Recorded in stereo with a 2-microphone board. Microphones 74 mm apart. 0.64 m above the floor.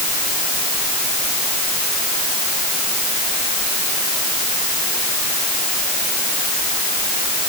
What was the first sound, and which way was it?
Only background noise.